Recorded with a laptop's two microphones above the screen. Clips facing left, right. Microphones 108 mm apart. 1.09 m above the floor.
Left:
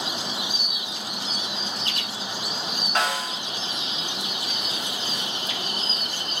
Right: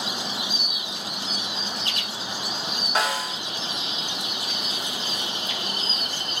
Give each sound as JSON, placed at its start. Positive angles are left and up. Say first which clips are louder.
{"t": 3.0, "sound": "a snare drum", "louder": "even", "side_deg": -5, "distance_m": 0.7}